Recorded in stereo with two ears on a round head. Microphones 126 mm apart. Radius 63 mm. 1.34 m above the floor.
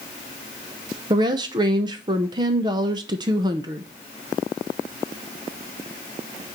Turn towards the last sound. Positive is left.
turn(degrees=-30)  # may be behind; listen again after turning